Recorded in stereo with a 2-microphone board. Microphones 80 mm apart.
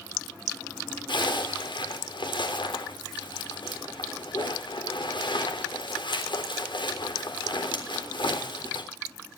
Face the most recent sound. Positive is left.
turn(degrees=80)